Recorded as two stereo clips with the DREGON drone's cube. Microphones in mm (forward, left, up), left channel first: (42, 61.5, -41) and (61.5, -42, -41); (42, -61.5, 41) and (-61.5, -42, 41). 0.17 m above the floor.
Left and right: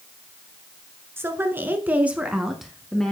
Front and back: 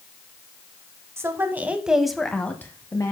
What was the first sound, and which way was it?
A woman speaking, 135° right.